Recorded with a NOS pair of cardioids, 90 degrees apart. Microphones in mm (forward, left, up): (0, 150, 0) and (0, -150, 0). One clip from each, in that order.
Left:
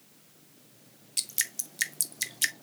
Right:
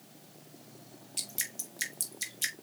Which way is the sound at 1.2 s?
30° left.